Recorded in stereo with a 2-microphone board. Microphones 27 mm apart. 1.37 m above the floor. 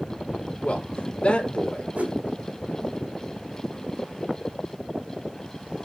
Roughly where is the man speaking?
Left.